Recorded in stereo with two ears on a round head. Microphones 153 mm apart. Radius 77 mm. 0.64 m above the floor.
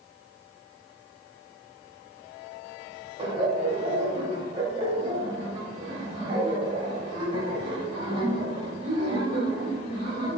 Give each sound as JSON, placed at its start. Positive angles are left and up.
{"t": 3.2, "sound": "laughter", "side_deg": -30, "distance_m": 2.5}